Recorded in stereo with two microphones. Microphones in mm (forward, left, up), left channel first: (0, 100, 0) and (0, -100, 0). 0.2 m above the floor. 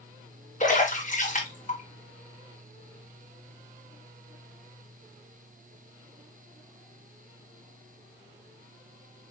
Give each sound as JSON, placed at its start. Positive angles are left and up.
{"t": 0.6, "sound": "a splash", "side_deg": 40, "distance_m": 2.0}